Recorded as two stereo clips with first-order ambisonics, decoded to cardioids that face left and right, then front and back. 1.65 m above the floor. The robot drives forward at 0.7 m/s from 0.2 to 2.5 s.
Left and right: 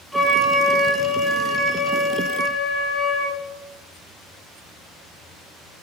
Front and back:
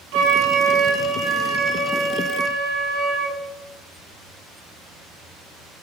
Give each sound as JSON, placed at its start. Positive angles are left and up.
{"t": 0.1, "sound": "a flute", "azimuth_deg": 180, "distance_m": 0.6}